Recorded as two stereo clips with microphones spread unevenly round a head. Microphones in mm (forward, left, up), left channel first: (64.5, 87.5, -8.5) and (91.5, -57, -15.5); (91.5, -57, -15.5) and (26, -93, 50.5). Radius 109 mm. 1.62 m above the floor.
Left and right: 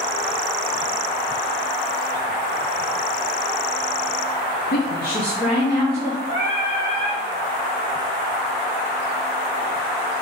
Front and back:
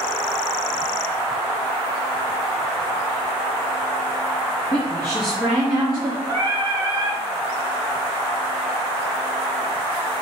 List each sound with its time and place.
4.7 s a woman speaking: 100° left, 0.8 m; by 6.2 s straight behind, 1.1 m
6.3 s singing: 130° right, 1.2 m